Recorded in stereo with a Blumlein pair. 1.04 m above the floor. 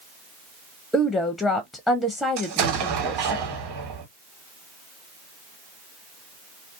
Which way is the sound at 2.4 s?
45° right.